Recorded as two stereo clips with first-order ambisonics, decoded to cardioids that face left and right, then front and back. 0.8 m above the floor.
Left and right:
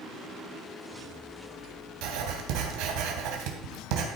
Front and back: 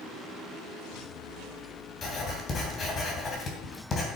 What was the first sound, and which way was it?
Writing, 65° right.